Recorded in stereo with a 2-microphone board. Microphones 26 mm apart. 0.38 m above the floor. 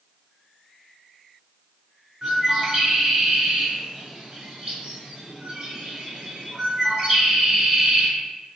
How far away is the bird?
About 1.1 m.